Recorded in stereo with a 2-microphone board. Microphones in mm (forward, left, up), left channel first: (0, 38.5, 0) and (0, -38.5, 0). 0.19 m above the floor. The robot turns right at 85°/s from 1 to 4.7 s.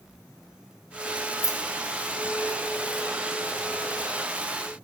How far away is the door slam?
I don't hear a door slam.